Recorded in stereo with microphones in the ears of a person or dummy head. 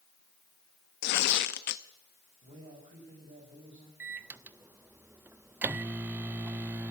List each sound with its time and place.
1.0 s tearing paper: 50° left (ahead or behind), 0.7 m
2.4 s a man speaking: 40° right (ahead or behind), 6 m
4.0 s a microwave: 10° right (ahead or behind), 0.5 m